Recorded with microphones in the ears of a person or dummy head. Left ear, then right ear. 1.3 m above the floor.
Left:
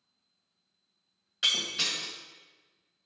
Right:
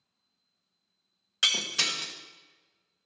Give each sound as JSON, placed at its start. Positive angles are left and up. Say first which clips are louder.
{"t": 1.4, "sound": "breaking glass", "louder": "right 2 dB", "side_deg": -30, "distance_m": 0.9}